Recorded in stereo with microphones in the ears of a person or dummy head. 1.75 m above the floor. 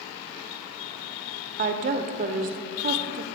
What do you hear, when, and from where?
1.6 s a woman speaking: 50° right (ahead or behind), 0.6 m